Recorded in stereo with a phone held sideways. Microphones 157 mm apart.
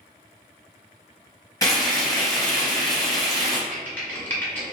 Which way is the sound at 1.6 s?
20° left (ahead or behind).